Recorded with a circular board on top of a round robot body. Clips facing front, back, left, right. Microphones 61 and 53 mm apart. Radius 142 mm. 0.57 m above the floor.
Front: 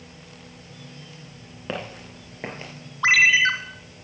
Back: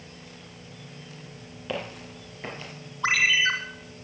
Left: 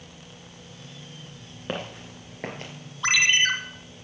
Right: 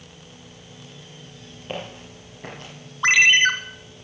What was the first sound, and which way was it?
Footsteps, 55° left.